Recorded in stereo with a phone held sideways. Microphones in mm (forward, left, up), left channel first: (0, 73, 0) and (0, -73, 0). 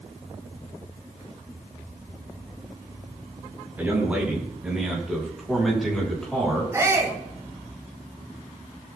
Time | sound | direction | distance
3.8 | a man speaking | 10° right (ahead or behind) | 5.5 m
6.7 | a shout | 20° right (ahead or behind) | 6.5 m